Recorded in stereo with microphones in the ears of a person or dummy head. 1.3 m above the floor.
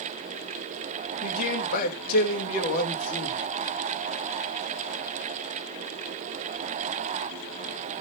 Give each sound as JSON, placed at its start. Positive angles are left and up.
{"t": 1.2, "sound": "a man speaking", "side_deg": 55, "distance_m": 2.5}